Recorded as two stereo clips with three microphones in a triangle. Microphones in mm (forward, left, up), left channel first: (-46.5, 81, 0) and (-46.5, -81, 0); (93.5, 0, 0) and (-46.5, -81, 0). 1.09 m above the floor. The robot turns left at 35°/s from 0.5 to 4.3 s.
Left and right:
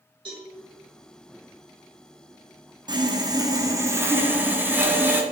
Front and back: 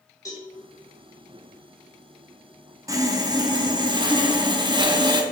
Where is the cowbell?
35° right, 1.6 m.